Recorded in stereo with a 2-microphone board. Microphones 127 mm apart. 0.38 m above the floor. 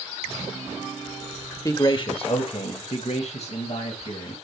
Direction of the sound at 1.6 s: 25° left (ahead or behind).